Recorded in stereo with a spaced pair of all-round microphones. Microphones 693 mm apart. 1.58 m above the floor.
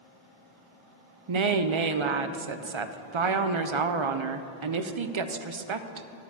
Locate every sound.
1.3 s a woman speaking: 45° right (ahead or behind), 0.5 m